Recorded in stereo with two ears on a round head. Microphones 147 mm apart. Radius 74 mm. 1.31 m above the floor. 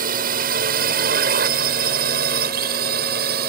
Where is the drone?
60° right (ahead or behind); by 3.5 s 65° right (ahead or behind).